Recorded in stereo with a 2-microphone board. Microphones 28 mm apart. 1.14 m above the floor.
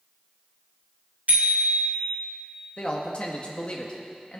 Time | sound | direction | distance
1.3 | a bicycle bell | 75° right (ahead or behind) | 3 m
2.8 | a man speaking | 40° left (ahead or behind) | 1.8 m